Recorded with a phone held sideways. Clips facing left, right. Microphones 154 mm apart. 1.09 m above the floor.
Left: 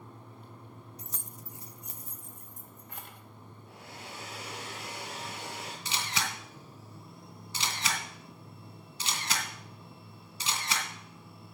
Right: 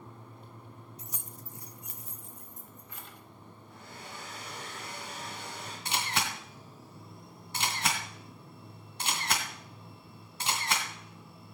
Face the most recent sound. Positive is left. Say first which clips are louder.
# right 3 dB
turn(degrees=-70)  # may be behind; listen again after turning